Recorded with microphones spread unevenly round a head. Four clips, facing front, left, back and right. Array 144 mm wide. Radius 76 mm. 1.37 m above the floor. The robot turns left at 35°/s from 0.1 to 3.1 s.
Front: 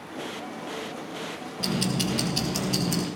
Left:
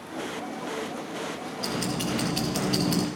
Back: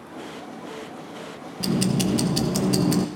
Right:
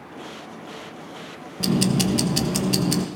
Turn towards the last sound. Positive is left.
turn(degrees=180)